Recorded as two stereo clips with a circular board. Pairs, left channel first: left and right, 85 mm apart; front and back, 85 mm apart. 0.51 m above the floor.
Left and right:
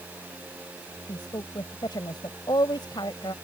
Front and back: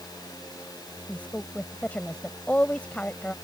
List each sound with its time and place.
1.1 s a woman speaking: 75° left